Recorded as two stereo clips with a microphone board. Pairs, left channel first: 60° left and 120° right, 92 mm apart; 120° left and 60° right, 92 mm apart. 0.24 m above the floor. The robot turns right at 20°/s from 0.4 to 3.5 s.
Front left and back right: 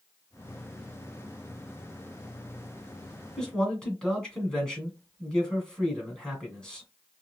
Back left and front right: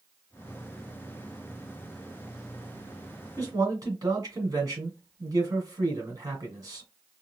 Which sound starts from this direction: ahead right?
A man speaking, at 3.4 s.